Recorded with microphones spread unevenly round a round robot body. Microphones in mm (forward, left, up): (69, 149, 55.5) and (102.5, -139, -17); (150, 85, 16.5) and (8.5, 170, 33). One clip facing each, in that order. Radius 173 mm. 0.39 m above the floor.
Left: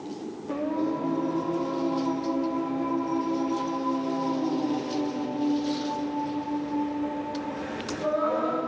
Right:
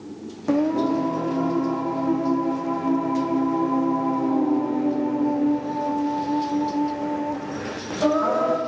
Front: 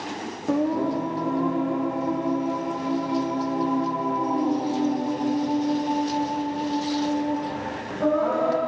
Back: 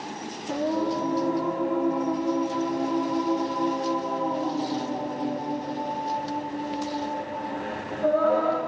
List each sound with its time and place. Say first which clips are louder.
0.5 s singing: right 8 dB, front 3 dB; 80° right, 5 m